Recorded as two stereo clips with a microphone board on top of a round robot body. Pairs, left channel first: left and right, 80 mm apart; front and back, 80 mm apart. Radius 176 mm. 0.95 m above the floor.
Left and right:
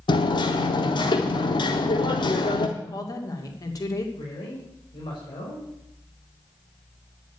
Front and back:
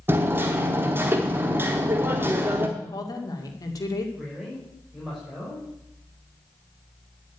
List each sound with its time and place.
0.1 s hammering: 115° left, 0.9 m
2.8 s a woman speaking: 45° left, 2.5 m
4.2 s a man speaking: 100° left, 5.5 m